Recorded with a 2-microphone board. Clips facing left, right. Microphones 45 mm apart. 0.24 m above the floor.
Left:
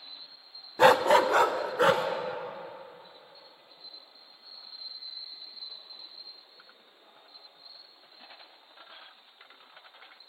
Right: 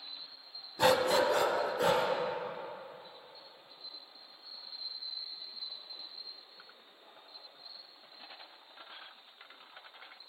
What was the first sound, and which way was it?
A dog barking, 40° left (ahead or behind).